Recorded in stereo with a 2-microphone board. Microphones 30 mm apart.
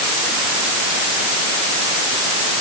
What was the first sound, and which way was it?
Only background noise.